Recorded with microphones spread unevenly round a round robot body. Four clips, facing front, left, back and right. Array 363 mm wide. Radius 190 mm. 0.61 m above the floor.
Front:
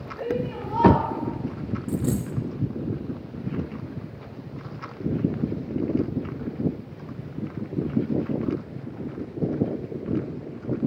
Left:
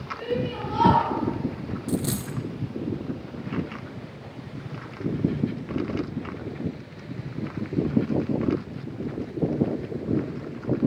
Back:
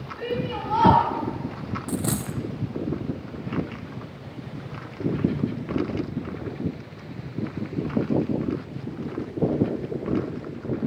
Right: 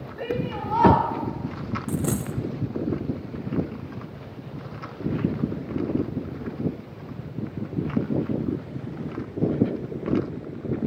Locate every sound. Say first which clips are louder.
0.2 s a shout: even, even; 155° right, 3 m
1.9 s a dropped coin: even, front 1 dB; 165° right, 0.6 m